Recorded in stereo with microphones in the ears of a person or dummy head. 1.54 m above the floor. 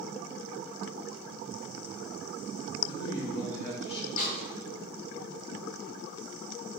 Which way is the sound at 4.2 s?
65° left (ahead or behind).